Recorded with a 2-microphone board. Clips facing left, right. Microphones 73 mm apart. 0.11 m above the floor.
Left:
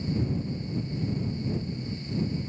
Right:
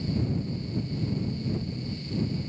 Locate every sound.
Only background noise.